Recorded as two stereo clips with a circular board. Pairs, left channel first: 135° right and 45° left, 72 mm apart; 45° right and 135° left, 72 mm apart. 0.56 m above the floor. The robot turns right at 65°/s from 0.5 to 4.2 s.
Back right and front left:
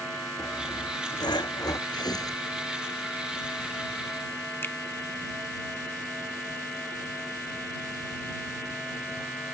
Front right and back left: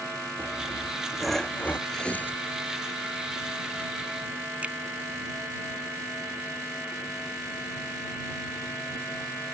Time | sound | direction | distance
0.4 | sawing | 175° left | ?
1.9 | tearing paper | 130° right | ?
4.6 | a finger snap | 165° right | ?